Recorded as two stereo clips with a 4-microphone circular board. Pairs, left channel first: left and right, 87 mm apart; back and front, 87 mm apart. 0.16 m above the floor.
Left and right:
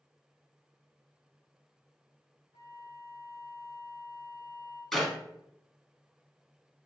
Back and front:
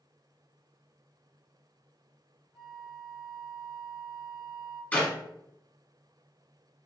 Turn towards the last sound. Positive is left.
turn(degrees=170)